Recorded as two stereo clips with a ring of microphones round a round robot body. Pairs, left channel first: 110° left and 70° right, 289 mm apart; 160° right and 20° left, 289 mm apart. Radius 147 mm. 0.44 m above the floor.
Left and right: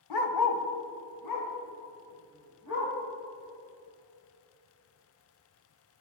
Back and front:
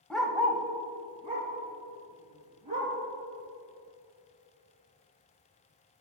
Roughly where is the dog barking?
Behind left.